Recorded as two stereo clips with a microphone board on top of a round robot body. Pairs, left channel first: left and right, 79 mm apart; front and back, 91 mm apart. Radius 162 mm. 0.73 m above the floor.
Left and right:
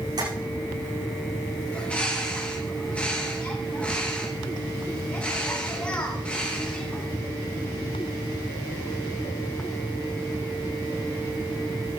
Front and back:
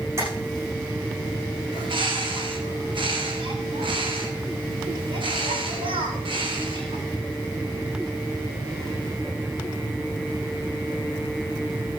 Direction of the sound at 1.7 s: 165° left.